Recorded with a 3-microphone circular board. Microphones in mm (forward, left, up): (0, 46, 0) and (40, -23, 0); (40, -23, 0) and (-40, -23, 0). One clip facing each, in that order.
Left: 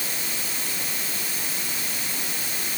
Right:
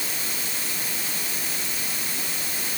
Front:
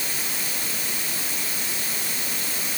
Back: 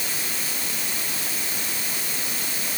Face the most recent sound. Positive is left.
No sound to turn to.